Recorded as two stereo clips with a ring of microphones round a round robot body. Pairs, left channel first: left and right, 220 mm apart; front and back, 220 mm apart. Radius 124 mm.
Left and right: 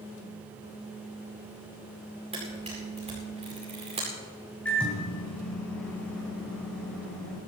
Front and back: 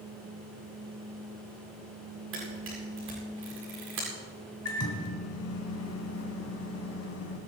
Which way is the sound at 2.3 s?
155° right.